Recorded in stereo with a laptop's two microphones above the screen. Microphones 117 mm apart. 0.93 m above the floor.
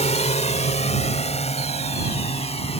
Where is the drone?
75° left (ahead or behind); by 2.8 s 65° left (ahead or behind).